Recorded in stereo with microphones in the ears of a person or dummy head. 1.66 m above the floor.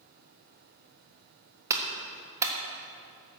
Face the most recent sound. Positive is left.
turn(degrees=-15)  # may be behind; listen again after turning